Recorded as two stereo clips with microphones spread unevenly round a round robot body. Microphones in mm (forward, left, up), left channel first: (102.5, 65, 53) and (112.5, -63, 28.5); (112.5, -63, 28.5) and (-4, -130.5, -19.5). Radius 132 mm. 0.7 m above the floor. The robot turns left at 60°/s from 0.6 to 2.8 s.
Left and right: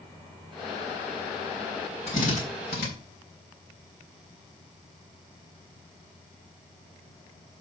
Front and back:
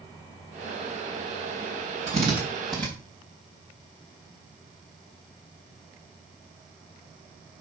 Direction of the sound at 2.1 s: 160° left.